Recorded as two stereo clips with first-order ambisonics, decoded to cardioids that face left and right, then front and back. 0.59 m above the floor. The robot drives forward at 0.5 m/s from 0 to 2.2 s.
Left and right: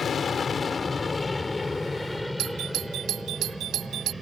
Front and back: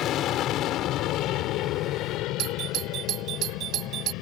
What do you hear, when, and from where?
0.0 s an aircraft: 30° left; by 4.2 s 15° right
2.4 s a doorbell: 135° right